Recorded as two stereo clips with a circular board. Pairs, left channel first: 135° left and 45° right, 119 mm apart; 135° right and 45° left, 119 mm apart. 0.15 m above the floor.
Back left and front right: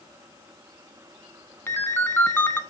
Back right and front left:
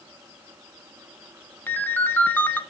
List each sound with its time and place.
1.7 s a ringtone: 175° left, 0.8 m